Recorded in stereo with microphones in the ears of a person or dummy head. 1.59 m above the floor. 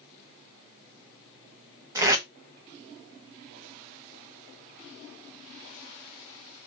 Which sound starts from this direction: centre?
Tape being pulled, at 1.9 s.